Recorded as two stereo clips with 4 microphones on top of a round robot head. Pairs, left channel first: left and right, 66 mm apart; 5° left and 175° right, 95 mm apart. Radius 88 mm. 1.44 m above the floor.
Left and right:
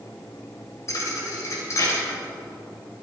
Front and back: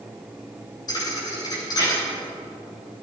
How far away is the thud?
About 3.5 m.